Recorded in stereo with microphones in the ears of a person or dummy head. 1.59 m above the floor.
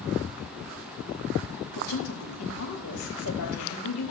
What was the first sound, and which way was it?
A woman speaking, 90° left.